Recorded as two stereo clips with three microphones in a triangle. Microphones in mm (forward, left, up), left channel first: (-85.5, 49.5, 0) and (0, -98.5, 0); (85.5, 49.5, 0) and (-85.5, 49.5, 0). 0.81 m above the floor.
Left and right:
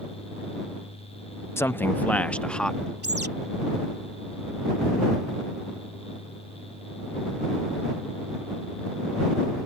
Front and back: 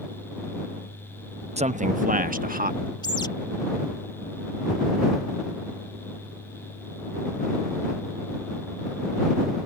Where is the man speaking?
170° right; by 2.9 s 155° right.